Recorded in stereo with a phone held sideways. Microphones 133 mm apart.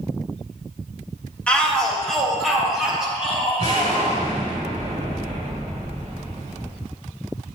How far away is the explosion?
About 2.5 m.